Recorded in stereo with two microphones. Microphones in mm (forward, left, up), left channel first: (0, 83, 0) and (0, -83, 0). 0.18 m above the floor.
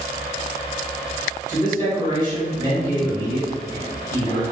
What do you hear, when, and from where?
1.5 s a man speaking: 25° right (ahead or behind), 1.9 m